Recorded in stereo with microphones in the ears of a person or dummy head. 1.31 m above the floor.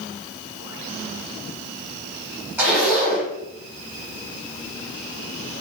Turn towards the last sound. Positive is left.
turn(degrees=-10)  # may be behind; listen again after turning